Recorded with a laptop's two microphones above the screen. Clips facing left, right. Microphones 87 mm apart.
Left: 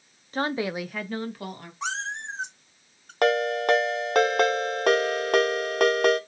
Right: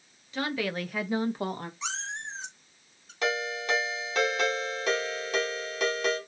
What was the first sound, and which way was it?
A woman speaking, 45° left (ahead or behind).